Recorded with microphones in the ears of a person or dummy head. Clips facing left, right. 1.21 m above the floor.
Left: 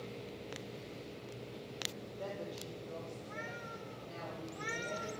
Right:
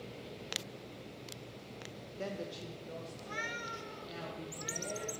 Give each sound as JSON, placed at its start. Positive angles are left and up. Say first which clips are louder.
{"t": 2.2, "sound": "a woman speaking", "louder": "right 2 dB", "side_deg": -30, "distance_m": 0.7}